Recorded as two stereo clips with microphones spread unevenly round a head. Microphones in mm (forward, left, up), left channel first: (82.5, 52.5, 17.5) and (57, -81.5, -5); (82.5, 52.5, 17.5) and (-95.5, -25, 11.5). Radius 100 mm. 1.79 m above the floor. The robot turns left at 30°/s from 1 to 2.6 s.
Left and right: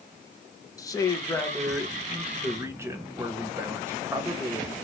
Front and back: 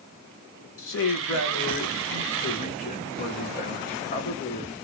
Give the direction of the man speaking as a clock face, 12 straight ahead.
11 o'clock.